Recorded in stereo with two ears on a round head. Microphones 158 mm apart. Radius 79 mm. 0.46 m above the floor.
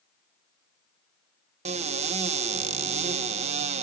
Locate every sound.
1.6 s a cupboard door: 40° right (ahead or behind), 0.5 m